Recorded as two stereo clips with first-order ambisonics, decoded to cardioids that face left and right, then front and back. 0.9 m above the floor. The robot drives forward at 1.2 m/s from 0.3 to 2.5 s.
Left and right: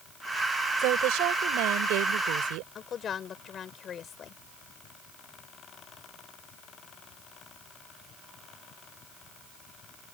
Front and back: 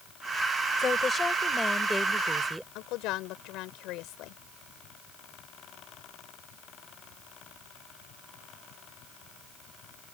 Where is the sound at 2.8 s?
30° left.